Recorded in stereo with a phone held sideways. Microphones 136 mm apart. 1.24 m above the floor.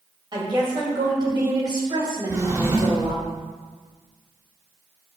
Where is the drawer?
25° right (ahead or behind), 1.2 m.